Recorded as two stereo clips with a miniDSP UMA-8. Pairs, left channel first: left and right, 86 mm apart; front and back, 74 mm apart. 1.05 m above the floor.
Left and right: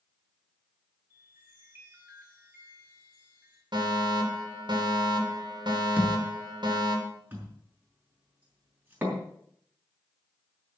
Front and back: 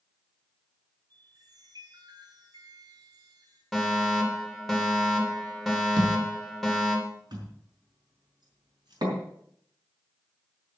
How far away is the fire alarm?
About 3 m.